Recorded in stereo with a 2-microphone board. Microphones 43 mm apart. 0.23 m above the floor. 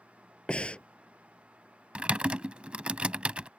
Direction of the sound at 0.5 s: 20° left (ahead or behind).